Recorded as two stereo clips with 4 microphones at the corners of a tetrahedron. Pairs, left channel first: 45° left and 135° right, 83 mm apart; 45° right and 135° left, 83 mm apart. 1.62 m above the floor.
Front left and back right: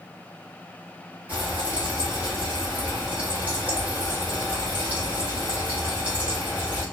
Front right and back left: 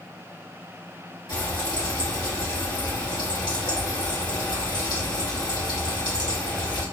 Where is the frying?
65° right, 1.2 m.